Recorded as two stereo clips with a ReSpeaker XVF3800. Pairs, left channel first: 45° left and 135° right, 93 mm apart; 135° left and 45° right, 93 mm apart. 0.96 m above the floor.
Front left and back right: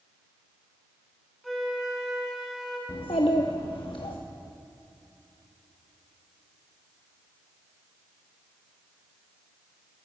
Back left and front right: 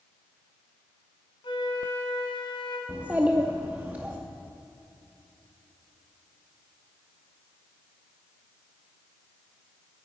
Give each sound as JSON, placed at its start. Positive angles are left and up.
{"t": 1.4, "sound": "a flute", "azimuth_deg": 135, "distance_m": 2.0}
{"t": 2.9, "sound": "a child speaking", "azimuth_deg": 25, "distance_m": 0.7}